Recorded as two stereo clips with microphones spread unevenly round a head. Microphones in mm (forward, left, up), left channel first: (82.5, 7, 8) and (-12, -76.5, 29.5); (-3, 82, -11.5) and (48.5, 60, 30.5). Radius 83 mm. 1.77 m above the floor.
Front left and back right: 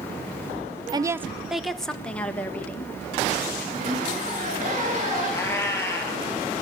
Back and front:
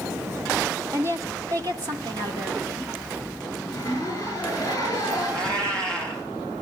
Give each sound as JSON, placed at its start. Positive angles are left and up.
{"t": 0.9, "sound": "a woman speaking", "azimuth_deg": -85, "distance_m": 0.8}
{"t": 3.6, "sound": "a zipper", "azimuth_deg": -120, "distance_m": 7.0}
{"t": 5.3, "sound": "a cat meowing", "azimuth_deg": -30, "distance_m": 7.5}